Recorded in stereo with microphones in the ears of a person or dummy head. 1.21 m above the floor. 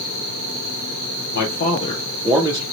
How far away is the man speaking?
About 1.0 m.